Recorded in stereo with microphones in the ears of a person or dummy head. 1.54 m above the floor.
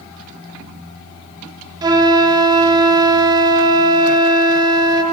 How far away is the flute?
About 0.7 m.